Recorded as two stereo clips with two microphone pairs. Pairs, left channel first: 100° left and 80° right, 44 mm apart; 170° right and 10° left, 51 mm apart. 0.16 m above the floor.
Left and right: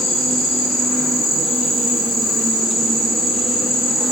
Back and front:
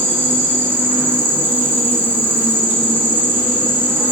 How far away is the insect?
About 1.3 m.